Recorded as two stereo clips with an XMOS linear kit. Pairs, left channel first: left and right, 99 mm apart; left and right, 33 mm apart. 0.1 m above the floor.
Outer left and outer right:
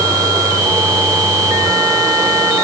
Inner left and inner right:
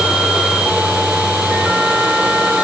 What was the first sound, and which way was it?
Only background noise.